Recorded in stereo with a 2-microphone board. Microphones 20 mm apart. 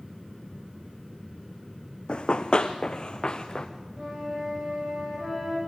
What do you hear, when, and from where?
2.1 s running footsteps: 60° left (ahead or behind), 0.9 m; by 3.7 s 45° left (ahead or behind), 1.6 m
4.0 s a flute: 25° right (ahead or behind), 6.5 m